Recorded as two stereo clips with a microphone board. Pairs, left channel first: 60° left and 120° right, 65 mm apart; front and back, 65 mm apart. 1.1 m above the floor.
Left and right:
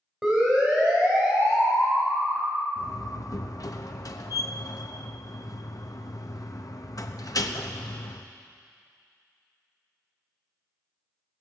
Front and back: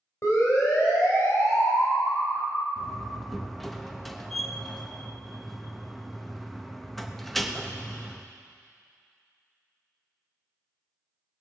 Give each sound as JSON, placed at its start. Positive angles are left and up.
{"t": 0.2, "sound": "a siren", "azimuth_deg": -35, "distance_m": 5.0}
{"t": 2.8, "sound": "a door slam", "azimuth_deg": 90, "distance_m": 0.8}